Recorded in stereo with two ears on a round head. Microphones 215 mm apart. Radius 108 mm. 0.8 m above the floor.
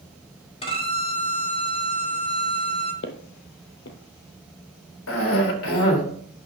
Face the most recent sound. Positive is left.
turn(degrees=60)  # may be behind; listen again after turning